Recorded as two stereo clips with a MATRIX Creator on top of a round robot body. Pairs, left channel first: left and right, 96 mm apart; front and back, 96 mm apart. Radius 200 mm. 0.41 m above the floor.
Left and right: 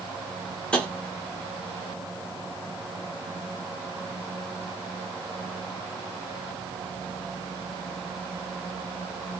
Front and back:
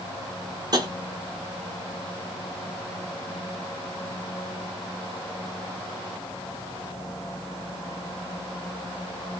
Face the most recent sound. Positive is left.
turn(degrees=165)